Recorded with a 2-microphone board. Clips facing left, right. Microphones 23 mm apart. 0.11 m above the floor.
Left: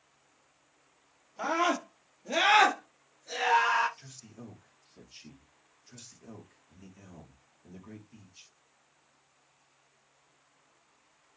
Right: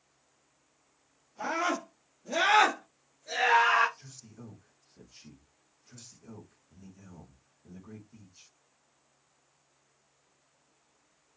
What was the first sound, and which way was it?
A scream, 45° left (ahead or behind).